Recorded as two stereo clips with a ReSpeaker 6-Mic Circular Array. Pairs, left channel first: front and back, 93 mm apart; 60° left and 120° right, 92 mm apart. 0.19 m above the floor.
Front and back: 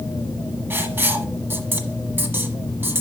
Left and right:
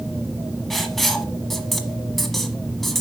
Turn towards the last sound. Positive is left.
turn(degrees=145)